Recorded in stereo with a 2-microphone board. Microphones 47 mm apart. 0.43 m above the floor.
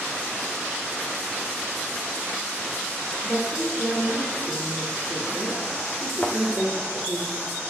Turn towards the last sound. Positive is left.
turn(degrees=35)  # may be behind; listen again after turning